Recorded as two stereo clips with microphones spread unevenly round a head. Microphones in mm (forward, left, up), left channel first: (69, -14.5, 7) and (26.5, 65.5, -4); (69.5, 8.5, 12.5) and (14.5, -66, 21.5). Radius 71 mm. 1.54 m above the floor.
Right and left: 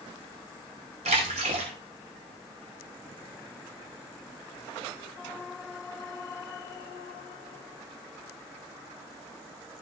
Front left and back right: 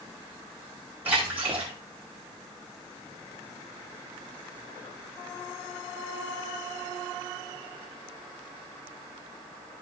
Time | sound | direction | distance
1.1 | a splash | 155° left | 2.5 m